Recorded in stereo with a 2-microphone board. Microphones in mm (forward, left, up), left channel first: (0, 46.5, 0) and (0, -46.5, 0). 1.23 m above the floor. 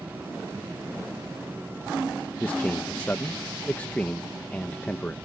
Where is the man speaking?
20° left (ahead or behind).